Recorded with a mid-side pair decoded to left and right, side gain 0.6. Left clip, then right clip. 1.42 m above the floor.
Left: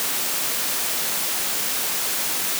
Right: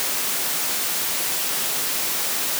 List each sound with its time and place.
Only background noise.